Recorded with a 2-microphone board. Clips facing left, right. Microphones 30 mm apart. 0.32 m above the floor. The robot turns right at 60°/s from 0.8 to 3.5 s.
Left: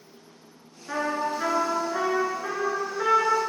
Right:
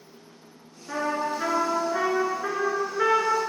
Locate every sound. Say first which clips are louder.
0.9 s a trumpet: even; 155° left, 2 m; by 3.5 s 50° right, 2 m